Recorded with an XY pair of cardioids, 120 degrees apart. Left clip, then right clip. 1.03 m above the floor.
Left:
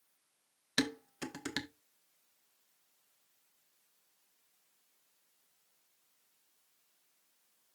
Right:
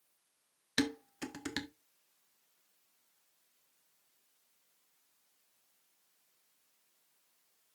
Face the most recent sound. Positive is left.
turn(degrees=0)